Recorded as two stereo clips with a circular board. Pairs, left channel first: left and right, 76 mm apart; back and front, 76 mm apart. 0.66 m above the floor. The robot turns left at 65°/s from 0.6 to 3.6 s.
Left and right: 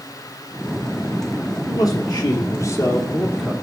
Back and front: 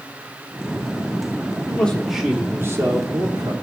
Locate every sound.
1.7 s a man speaking: 115° left, 2 m; by 3.5 s 5° right, 2 m